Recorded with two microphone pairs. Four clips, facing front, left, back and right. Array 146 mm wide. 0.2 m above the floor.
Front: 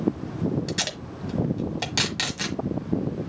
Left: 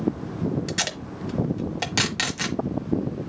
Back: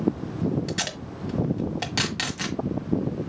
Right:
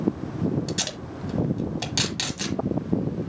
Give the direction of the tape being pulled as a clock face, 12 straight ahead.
9 o'clock.